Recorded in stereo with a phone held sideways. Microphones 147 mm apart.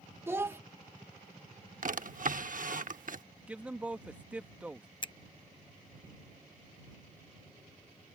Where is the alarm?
I don't hear an alarm.